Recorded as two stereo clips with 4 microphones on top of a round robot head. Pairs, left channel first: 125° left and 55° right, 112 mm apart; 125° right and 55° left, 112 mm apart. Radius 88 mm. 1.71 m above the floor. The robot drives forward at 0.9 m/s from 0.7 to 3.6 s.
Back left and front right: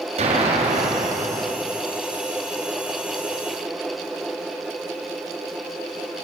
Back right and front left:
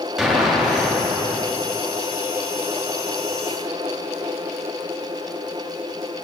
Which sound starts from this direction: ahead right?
An explosion, at 0.2 s.